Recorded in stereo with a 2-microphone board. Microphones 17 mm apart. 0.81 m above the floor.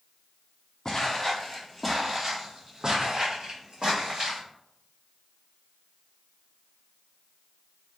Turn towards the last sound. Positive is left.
turn(degrees=-65)  # may be behind; listen again after turning